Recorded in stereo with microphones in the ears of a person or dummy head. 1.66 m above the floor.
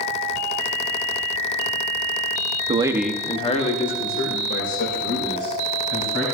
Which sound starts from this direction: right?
A man speaking, at 2.7 s.